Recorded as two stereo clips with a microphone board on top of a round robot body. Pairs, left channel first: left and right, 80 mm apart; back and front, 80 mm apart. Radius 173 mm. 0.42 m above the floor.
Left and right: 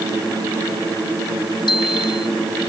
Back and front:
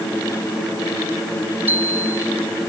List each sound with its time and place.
1.7 s a bicycle bell: 65° left